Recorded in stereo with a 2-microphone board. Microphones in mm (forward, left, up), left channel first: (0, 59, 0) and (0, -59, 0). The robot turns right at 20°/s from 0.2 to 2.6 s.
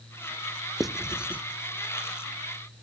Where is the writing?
Centre (ahead or behind), 0.8 m; by 1.4 s 15° right (ahead or behind), 0.8 m.